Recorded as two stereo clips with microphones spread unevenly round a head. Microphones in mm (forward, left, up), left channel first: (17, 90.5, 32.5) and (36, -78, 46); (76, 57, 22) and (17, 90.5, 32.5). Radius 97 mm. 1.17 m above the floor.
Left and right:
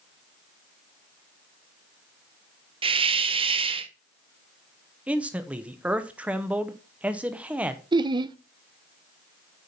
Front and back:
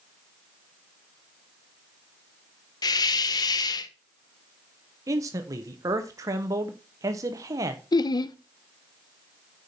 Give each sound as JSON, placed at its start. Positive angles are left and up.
{"t": 2.8, "sound": "a hiss", "azimuth_deg": -25, "distance_m": 0.7}
{"t": 5.1, "sound": "a man speaking", "azimuth_deg": -170, "distance_m": 0.8}
{"t": 7.9, "sound": "laughter", "azimuth_deg": -20, "distance_m": 0.6}